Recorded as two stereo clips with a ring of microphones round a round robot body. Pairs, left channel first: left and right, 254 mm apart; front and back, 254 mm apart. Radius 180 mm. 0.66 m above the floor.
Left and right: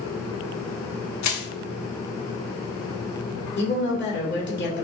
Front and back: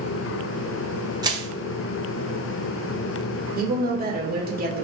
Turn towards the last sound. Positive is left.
turn(degrees=130)